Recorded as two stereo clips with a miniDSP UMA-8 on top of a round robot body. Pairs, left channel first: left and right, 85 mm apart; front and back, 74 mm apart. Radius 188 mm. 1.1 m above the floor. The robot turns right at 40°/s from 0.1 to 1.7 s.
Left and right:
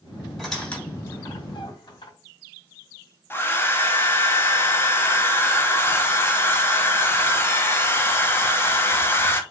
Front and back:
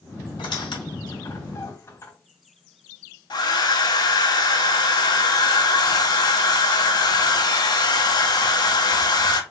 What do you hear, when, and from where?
0.4 s a squeak: straight ahead, 2.5 m; by 2.1 s 55° left, 2.5 m
3.3 s a hair dryer: 25° left, 0.8 m